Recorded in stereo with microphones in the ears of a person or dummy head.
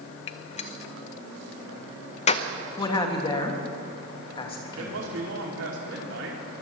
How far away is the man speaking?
About 2.5 m.